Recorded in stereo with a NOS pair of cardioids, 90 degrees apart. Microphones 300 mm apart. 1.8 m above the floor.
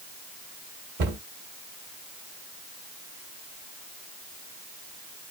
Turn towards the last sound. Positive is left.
turn(degrees=-55)